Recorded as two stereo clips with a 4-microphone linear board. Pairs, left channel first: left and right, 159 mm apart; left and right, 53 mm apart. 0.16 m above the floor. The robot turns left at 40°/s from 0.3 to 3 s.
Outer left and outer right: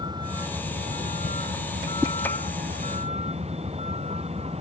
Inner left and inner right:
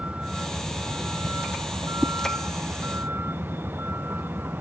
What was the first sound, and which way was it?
A vehicle, 25° right (ahead or behind).